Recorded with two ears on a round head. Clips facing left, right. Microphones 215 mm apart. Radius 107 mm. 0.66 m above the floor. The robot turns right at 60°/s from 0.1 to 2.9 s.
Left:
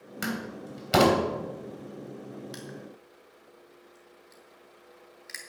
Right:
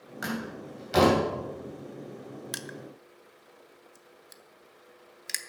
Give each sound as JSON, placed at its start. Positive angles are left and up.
{"t": 0.2, "sound": "a door slam", "side_deg": 40, "distance_m": 3.0}
{"t": 2.5, "sound": "crushing", "side_deg": -65, "distance_m": 0.9}